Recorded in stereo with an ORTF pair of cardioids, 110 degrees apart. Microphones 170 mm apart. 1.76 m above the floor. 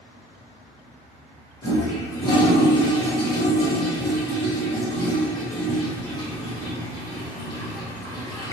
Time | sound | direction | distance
1.6 | a toilet flushing | 25° left | 0.9 m